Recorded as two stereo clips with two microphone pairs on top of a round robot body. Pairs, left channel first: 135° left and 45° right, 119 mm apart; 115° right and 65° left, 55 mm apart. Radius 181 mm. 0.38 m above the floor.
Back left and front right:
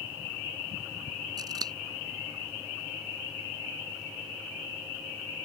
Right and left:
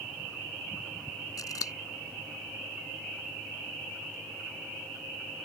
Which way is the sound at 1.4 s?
100° right.